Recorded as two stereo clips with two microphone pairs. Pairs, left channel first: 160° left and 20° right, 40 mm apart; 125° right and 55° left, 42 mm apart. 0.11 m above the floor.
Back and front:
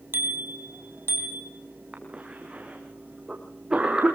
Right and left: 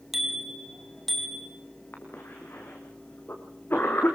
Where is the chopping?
I don't hear chopping.